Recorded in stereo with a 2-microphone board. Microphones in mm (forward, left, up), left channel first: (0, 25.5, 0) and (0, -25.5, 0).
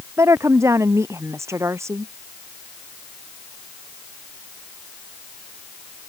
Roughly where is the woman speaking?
Right.